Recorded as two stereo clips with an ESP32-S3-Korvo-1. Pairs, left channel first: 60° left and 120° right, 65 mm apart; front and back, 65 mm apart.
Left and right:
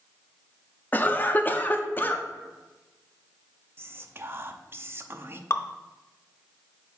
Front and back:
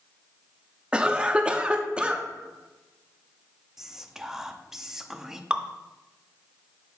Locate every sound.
0.9 s a cough: 115° left, 0.7 m
3.8 s whispering: 100° right, 0.6 m
5.5 s dripping: 105° left, 0.5 m